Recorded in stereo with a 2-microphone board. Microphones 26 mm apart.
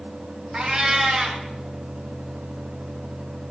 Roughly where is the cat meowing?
Right.